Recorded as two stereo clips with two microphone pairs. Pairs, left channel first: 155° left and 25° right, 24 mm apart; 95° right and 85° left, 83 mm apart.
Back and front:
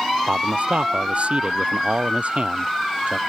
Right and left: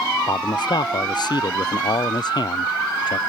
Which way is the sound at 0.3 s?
60° right.